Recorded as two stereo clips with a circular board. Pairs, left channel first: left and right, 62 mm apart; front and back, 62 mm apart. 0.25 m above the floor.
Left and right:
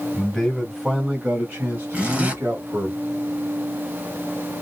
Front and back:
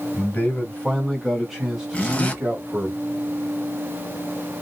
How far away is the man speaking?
About 1.6 m.